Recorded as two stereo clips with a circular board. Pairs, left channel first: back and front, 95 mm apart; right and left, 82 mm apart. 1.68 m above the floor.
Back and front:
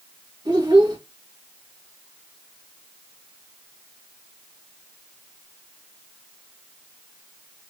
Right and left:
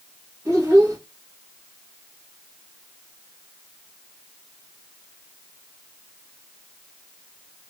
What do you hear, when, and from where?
0.5 s a child speaking: 30° left, 1.5 m